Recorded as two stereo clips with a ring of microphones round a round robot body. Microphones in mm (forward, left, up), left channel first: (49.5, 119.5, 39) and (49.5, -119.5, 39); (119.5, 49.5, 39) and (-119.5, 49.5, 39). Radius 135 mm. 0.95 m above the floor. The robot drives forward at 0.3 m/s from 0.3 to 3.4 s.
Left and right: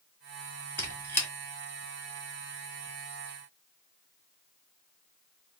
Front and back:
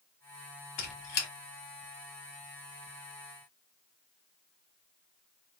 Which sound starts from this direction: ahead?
A squeak, at 0.8 s.